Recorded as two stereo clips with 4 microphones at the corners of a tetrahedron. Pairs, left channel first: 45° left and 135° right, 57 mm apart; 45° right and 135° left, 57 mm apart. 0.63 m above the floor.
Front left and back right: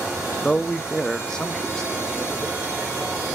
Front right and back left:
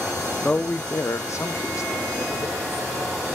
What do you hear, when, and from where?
0.4 s a man speaking: 20° right, 0.5 m; by 2.6 s 35° right, 1.6 m